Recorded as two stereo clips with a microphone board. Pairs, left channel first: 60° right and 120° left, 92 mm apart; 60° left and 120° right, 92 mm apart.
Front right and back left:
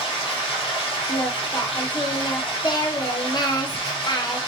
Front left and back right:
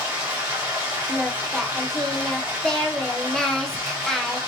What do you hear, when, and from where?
0.0 s running water: 60° right, 1.2 m
1.1 s singing: 25° right, 0.5 m